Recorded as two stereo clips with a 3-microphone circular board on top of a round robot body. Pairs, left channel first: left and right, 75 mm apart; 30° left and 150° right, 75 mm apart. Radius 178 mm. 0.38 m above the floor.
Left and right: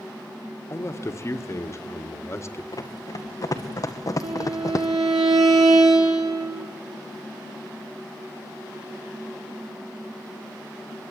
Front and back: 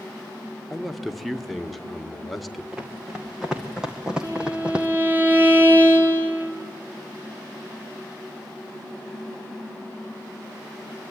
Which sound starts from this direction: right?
A violin, at 4.2 s.